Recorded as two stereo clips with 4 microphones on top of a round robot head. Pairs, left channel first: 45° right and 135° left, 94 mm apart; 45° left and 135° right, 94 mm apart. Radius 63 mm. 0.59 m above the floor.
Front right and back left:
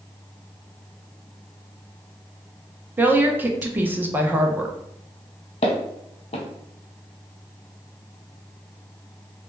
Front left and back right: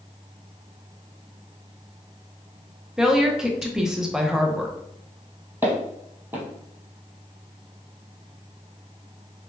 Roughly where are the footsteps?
Ahead right.